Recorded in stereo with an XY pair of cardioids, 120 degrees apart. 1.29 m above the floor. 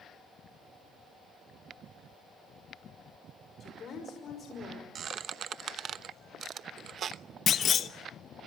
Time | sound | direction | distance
3.6 | a woman speaking | 45° left | 5.5 m
5.0 | a squeak | 50° right | 0.9 m
7.5 | a clunk | 45° left | 1.2 m